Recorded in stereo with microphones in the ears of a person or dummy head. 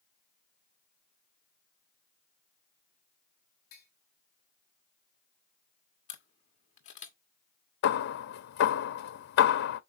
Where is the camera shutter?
40° left (ahead or behind), 1.5 m.